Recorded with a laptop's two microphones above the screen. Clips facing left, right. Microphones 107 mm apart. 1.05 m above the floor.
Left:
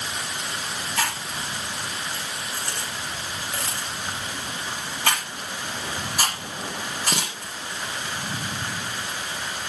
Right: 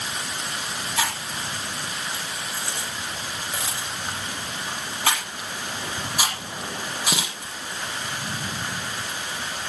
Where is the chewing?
5° right (ahead or behind), 5 m.